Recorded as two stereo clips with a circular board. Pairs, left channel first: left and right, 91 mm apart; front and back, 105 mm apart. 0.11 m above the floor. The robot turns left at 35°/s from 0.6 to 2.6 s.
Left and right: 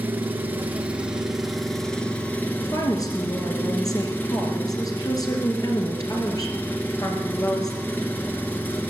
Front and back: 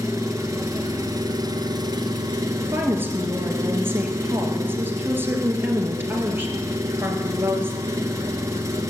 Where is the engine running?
145° right, 1.4 m; by 8.9 s 145° left, 1.4 m.